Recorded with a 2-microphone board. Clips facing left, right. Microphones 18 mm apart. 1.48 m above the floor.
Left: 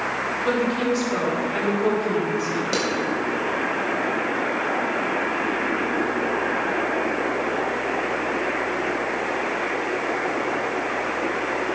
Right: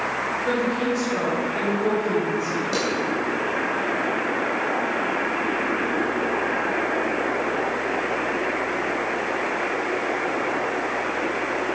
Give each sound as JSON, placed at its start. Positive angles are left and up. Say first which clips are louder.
{"t": 0.5, "sound": "a woman speaking", "louder": "left 2 dB", "side_deg": 35, "distance_m": 4.5}
{"t": 2.7, "sound": "a clap", "louder": "left 1 dB", "side_deg": 25, "distance_m": 5.0}